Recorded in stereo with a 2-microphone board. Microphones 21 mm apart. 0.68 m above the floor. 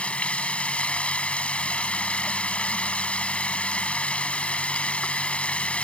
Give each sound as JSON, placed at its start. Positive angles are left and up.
{"t": 0.0, "sound": "running water", "side_deg": 75}